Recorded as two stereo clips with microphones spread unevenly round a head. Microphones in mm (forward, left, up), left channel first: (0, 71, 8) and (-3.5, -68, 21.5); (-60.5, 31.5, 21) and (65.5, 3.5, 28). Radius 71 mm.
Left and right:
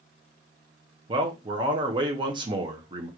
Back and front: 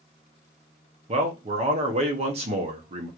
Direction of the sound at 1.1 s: 40° right.